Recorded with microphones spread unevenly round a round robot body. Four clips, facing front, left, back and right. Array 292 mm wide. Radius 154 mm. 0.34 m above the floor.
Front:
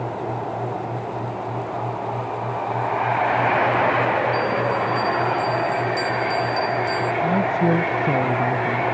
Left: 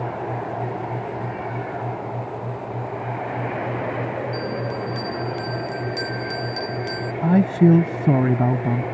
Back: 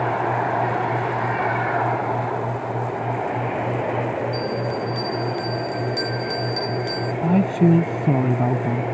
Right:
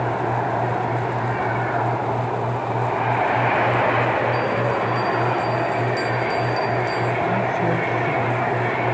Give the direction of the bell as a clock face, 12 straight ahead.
8 o'clock.